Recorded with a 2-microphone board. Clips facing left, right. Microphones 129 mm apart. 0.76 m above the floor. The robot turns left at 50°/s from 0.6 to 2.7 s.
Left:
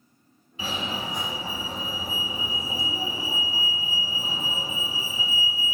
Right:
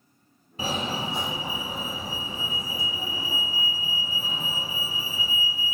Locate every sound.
0.6 s a fire alarm: 110° right, 1.7 m; by 5.8 s 145° left, 1.7 m